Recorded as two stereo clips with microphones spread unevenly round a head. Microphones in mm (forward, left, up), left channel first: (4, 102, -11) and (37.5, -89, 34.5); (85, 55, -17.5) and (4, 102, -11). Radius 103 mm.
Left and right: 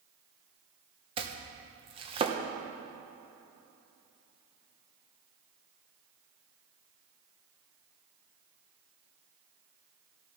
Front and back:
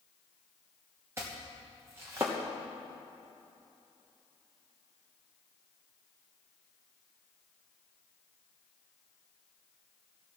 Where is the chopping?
140° right, 1.0 m.